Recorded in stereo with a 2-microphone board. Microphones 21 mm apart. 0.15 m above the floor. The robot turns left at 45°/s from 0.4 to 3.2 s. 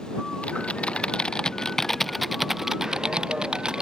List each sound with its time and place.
0.4 s typing on a keyboard: 80° left; by 3.8 s 40° right